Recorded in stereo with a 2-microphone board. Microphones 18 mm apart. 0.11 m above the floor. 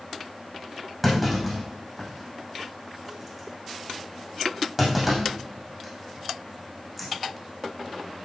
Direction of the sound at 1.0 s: Centre (ahead or behind).